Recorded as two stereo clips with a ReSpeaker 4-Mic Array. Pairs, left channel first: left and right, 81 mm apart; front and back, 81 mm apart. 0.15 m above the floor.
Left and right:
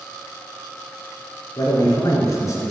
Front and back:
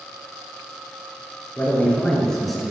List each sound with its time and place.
1.6 s a man speaking: 65° left, 2.5 m; by 2.7 s 100° left, 1.6 m